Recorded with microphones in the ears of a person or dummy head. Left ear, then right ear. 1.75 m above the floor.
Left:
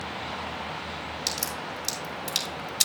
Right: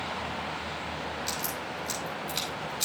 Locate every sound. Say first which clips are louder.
1.3 s a crack: left 2 dB; 75° left (ahead or behind), 5.5 m